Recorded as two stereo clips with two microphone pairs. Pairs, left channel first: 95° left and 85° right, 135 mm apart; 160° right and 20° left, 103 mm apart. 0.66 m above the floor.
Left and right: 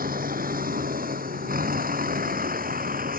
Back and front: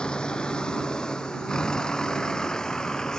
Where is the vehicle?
80° right; by 3.2 s 75° right.